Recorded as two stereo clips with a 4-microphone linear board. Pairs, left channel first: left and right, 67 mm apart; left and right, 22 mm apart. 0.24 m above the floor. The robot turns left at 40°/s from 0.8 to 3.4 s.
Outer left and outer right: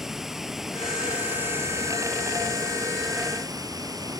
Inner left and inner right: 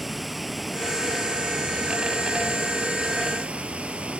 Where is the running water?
5° right; by 4.2 s 110° right.